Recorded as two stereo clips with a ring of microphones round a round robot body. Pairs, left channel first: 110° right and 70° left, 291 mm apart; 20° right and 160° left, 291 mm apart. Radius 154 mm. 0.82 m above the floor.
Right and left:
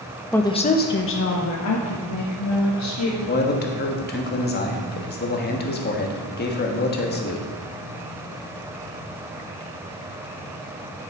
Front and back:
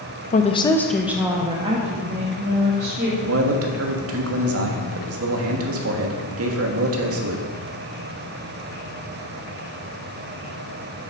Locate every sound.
0.3 s a woman speaking: 35° right, 0.8 m; by 3.1 s 140° right, 2.5 m
3.2 s a man speaking: 165° right, 1.5 m